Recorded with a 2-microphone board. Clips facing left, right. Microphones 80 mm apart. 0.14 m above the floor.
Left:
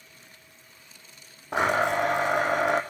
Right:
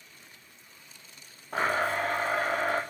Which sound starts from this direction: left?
A blender, at 1.5 s.